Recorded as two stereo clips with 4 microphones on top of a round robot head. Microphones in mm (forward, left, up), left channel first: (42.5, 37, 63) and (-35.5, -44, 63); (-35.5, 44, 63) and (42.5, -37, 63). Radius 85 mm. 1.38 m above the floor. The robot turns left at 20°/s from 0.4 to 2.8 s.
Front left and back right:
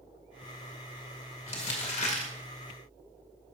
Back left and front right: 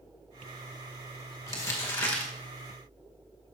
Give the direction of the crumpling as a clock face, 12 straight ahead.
10 o'clock.